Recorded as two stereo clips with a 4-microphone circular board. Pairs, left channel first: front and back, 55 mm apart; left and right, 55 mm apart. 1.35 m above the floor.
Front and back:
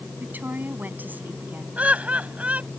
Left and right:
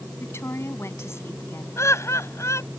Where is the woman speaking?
125° left.